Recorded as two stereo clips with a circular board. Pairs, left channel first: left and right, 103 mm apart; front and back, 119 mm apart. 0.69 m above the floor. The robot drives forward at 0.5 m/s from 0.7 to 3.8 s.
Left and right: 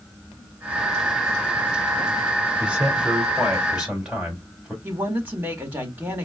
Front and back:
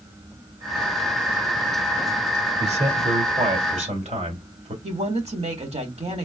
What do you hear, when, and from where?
2.6 s a man speaking: 170° right, 1.7 m
4.8 s a woman speaking: 160° right, 1.7 m